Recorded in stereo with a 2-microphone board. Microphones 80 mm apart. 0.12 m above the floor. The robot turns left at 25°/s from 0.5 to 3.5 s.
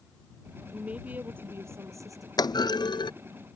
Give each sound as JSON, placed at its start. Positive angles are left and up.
{"t": 0.7, "sound": "a woman speaking", "azimuth_deg": -15}
{"t": 2.4, "sound": "a clunk", "side_deg": 60}